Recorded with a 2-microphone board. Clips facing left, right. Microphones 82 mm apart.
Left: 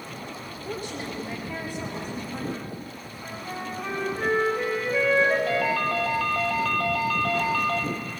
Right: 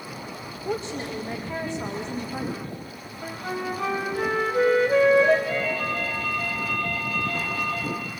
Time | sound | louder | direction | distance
0.7 | a woman speaking | right 4 dB | 25° right (ahead or behind) | 5 m
3.2 | a flute | right 5 dB | 70° right (ahead or behind) | 5.5 m
5.5 | a ringtone | left 2 dB | 65° left (ahead or behind) | 3 m